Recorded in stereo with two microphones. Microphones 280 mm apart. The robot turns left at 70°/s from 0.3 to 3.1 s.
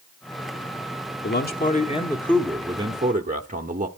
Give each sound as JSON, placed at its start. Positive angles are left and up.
{"t": 1.2, "sound": "a man speaking", "azimuth_deg": 80, "distance_m": 1.1}